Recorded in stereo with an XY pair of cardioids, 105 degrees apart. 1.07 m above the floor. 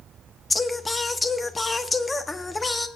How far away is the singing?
About 1.0 m.